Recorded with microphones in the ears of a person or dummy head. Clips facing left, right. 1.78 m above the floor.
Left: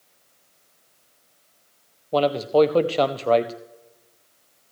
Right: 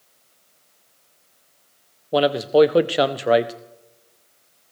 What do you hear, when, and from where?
2.1 s a man speaking: 15° right (ahead or behind), 0.6 m